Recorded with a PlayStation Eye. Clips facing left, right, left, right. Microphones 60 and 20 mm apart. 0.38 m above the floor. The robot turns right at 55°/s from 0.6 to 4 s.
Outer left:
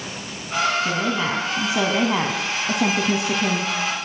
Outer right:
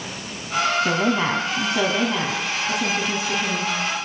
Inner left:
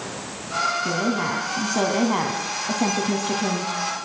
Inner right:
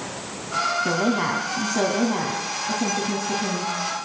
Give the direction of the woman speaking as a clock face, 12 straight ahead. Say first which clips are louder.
Outer right 2 dB, inner right 1 dB; 1 o'clock.